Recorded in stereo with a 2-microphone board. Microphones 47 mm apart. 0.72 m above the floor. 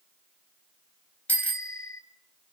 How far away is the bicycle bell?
About 3 m.